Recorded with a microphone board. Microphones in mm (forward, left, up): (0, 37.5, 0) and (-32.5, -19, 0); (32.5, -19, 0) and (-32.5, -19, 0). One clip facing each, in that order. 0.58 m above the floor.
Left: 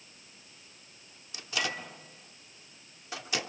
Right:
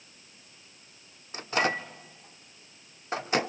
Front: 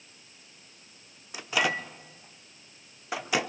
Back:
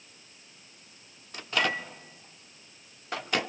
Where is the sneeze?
I don't hear a sneeze.